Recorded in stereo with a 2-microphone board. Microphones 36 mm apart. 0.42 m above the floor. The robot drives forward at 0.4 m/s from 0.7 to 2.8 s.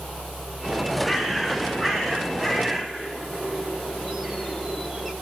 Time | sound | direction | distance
1.0 | a bird | 10° right (ahead or behind) | 2.5 m